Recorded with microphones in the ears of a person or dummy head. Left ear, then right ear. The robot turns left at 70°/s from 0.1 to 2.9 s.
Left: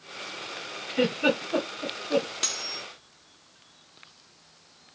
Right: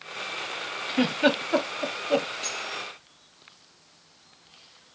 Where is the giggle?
30° right (ahead or behind), 1.6 m; by 2.3 s 40° right (ahead or behind), 1.6 m.